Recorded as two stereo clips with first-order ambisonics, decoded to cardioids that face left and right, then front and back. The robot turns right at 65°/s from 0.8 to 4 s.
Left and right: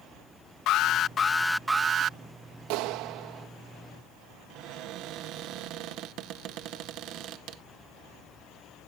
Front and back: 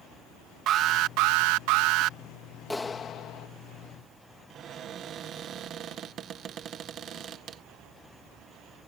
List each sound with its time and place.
0.7 s an alarm: 135° left; by 2.2 s 135° right
2.7 s a clap: 85° right; by 3.5 s 30° right
4.5 s a cupboard door: 125° right